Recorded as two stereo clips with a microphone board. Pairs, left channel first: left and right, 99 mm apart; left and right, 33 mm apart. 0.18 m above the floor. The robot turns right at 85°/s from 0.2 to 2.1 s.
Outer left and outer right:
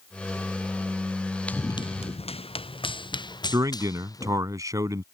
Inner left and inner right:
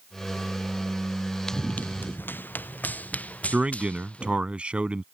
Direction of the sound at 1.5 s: 15° left (ahead or behind).